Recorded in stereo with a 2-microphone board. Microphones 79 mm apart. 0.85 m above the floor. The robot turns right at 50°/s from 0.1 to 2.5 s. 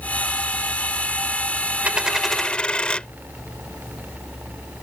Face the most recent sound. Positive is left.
turn(degrees=15)